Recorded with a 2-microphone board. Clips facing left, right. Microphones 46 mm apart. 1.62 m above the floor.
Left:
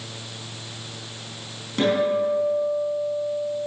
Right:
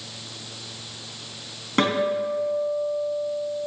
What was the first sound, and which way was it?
A guitar, 50° right (ahead or behind).